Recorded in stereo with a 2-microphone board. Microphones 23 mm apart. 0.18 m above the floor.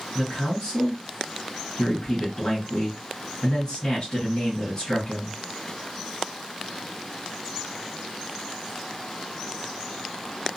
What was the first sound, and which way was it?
A man speaking, 25° left (ahead or behind).